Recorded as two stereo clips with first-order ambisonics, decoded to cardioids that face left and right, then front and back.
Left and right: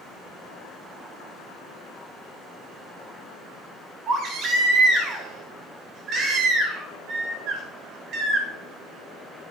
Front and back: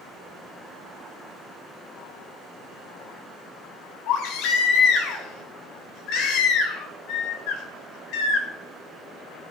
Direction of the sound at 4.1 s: 35° right.